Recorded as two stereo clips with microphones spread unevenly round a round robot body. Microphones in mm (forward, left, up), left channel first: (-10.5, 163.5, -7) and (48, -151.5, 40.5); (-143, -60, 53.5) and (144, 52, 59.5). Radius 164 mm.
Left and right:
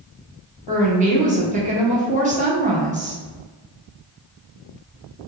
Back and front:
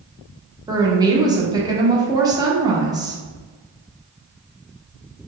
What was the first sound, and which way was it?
A woman speaking, 35° right.